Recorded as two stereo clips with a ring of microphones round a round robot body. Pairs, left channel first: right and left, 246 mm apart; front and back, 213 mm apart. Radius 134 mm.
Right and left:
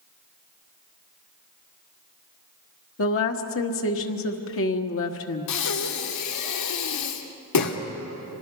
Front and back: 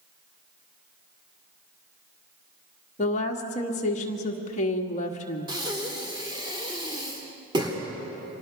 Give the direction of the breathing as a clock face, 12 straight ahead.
4 o'clock.